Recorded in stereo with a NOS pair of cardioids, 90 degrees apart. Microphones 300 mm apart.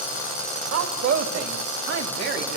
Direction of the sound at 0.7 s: 55° right.